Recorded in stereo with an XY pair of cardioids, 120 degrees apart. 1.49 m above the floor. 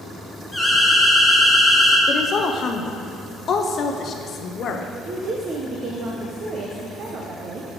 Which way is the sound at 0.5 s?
Straight ahead.